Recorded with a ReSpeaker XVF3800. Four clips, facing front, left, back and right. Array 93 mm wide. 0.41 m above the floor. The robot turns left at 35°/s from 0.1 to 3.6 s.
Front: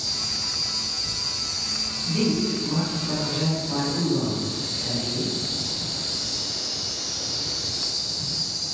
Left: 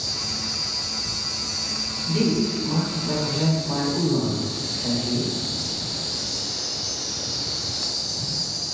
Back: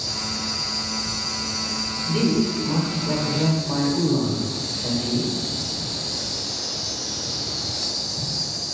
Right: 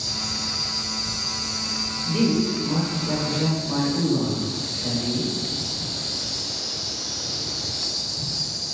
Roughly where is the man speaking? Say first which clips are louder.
Right 1 dB, back 3 dB; behind.